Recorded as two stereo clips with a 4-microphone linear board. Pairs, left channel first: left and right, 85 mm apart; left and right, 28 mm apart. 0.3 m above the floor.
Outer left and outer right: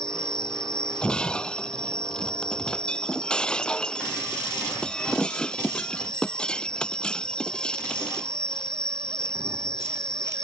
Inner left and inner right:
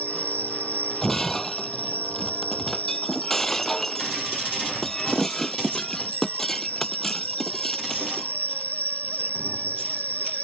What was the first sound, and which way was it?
An insect, 65° left (ahead or behind).